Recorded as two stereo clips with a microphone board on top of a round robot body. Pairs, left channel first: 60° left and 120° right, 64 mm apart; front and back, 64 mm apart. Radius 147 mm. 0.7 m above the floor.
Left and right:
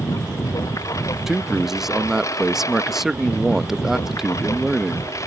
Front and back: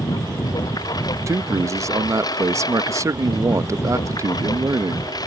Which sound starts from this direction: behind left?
A man speaking, at 1.3 s.